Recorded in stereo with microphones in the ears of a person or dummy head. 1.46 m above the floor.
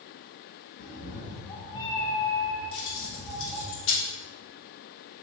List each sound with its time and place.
0.8 s a cat meowing: 55° left (ahead or behind), 1.3 m; by 3.7 s 10° right (ahead or behind), 2.5 m
2.7 s keys jangling: 70° left (ahead or behind), 2.5 m